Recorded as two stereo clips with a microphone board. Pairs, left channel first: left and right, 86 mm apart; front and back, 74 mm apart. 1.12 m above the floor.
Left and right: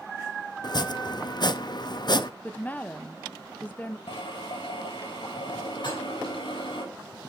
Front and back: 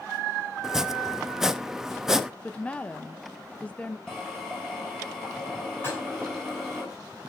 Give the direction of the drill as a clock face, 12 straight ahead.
9 o'clock.